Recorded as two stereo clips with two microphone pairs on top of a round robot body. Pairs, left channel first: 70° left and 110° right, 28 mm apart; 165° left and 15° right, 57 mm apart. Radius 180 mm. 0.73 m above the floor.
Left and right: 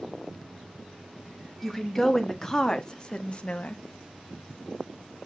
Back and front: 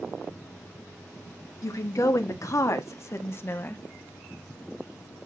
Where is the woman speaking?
155° left, 1.9 m; by 3.8 s 110° left, 1.2 m.